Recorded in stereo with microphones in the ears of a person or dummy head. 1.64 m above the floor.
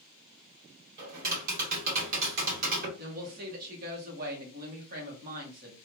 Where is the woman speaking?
50° right (ahead or behind), 1.3 m.